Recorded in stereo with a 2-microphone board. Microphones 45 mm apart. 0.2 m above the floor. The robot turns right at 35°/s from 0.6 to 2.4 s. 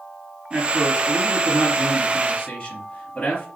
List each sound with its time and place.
0.5 s a man speaking: 40° right, 3.5 m; by 3.5 s 25° left, 3.5 m